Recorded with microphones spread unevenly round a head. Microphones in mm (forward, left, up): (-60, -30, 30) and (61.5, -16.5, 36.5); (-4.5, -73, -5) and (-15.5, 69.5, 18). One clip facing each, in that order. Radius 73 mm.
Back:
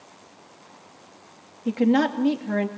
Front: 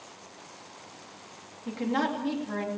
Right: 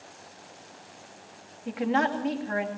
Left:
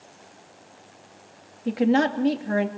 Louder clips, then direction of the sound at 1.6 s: Back 9 dB, left 6 dB; 145° left.